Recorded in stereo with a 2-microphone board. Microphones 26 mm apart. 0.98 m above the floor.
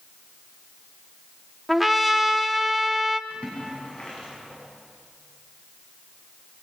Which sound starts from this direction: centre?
A trumpet, at 1.7 s.